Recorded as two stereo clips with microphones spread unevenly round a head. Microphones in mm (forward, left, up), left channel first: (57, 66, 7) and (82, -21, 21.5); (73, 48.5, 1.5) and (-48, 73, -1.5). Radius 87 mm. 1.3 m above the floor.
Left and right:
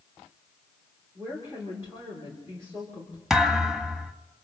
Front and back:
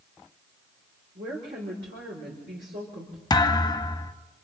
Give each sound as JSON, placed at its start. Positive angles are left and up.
{"t": 1.1, "sound": "a woman speaking", "azimuth_deg": -150, "distance_m": 3.5}
{"t": 3.3, "sound": "a thud", "azimuth_deg": -5, "distance_m": 1.3}